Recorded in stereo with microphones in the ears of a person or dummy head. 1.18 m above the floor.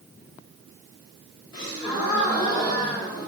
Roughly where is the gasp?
Centre.